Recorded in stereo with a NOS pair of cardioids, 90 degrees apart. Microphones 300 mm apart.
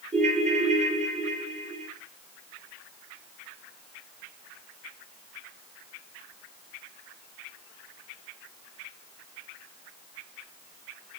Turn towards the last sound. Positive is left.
turn(degrees=-20)